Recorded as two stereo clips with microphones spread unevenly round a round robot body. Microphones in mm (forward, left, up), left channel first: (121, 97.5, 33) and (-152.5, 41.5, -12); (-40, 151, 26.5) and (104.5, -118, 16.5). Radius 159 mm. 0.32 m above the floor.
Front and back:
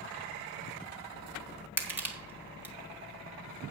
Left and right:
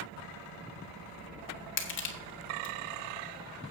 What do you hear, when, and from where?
1.8 s crushing: 125° left, 1.7 m